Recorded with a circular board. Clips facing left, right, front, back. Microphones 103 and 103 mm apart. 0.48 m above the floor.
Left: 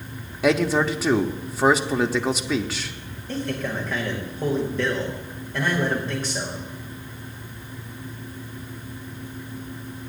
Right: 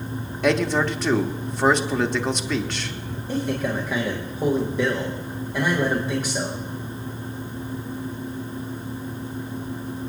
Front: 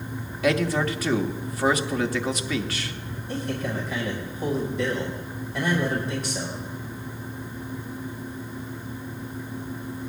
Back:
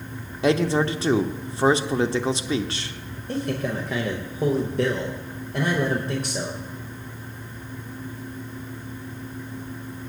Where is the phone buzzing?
I don't hear a phone buzzing.